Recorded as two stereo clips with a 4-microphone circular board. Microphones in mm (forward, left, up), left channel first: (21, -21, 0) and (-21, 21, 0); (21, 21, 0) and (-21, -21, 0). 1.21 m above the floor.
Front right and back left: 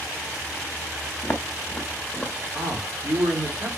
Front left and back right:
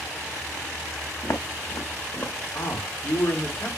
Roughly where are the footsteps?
Ahead.